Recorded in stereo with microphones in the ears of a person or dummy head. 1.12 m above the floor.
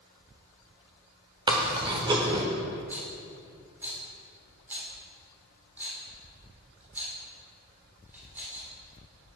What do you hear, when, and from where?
1.5 s chewing: 20° right (ahead or behind), 1.1 m
2.9 s a rattle: 5° right (ahead or behind), 3 m